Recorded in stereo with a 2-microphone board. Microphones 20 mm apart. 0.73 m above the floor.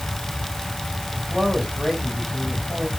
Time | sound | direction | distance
1.1 | a man speaking | 35° right (ahead or behind) | 4.5 m